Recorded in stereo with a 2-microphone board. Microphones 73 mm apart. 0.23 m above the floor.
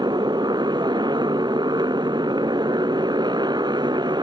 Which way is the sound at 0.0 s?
80° right.